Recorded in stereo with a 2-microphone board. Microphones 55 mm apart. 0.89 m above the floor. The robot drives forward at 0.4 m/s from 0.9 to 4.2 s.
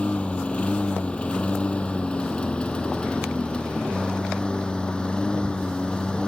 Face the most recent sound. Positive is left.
turn(degrees=20)  # may be behind; listen again after turning